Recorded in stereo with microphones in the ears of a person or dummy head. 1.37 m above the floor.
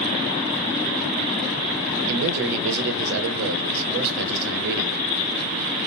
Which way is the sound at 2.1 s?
60° right (ahead or behind).